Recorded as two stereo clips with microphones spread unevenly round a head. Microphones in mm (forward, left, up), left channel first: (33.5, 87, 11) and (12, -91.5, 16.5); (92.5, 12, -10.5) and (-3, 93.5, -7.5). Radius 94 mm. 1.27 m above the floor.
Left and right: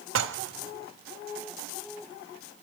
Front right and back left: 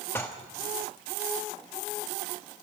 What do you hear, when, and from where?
0.1 s dishes clattering: 120° right, 1.2 m